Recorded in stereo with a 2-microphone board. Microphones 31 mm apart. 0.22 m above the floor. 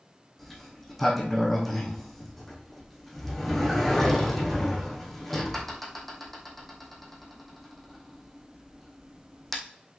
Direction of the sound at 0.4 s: 10° left (ahead or behind).